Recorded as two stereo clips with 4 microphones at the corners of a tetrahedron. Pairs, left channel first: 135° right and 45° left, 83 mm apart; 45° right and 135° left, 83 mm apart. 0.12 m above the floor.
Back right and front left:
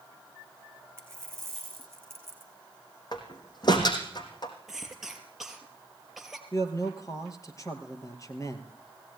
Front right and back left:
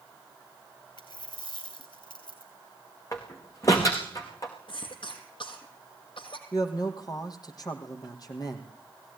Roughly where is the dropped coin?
Ahead.